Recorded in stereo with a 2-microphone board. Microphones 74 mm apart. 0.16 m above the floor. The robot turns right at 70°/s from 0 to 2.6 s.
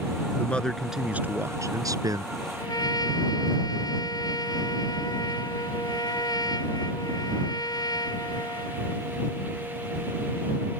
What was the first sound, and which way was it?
A man speaking, 150° left.